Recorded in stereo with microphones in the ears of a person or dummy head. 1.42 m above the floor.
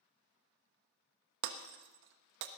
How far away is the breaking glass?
About 1.0 m.